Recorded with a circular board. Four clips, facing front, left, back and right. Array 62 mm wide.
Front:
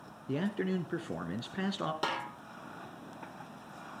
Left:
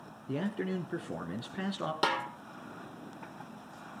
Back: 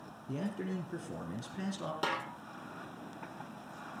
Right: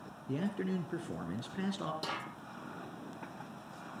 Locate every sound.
0.3 s a man speaking: 25° left, 1.4 m
2.0 s a snare drum: 85° left, 3 m